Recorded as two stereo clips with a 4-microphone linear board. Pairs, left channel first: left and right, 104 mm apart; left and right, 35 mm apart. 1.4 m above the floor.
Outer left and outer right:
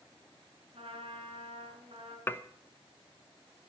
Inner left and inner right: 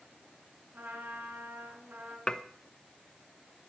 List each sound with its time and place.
0.7 s a trumpet: 70° right (ahead or behind), 4 m
2.3 s dishes clattering: 20° left (ahead or behind), 0.8 m